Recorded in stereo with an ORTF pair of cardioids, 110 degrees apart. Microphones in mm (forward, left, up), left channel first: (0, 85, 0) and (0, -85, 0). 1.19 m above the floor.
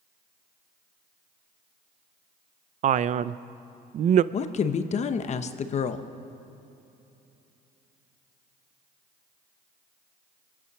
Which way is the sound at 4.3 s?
40° left.